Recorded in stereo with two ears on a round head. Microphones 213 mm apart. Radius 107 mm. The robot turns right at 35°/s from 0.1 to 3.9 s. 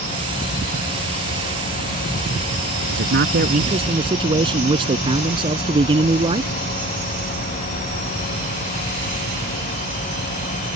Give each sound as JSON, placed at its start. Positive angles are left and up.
{"t": 2.9, "sound": "a man speaking", "azimuth_deg": -55}